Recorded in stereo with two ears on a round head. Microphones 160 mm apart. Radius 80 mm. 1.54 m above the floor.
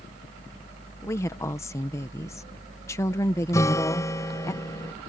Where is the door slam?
I don't hear a door slam.